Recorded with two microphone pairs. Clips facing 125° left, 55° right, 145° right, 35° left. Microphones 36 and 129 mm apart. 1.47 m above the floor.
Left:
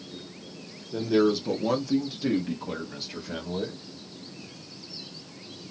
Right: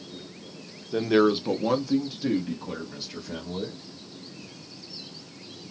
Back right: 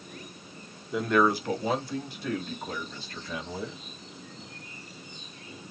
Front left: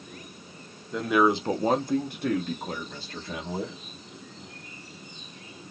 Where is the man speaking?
60° right, 0.6 m; by 3.8 s 55° left, 1.7 m.